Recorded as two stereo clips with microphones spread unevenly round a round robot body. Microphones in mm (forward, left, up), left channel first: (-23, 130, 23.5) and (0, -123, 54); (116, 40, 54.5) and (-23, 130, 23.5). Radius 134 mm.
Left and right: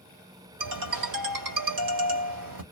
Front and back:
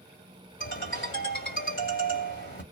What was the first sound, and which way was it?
A ringtone, 80° right.